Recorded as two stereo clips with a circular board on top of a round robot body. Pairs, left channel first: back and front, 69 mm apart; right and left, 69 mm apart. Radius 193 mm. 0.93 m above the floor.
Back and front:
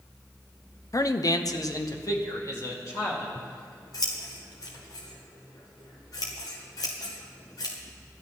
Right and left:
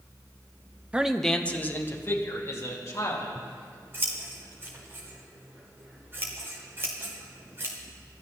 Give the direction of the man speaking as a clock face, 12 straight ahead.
7 o'clock.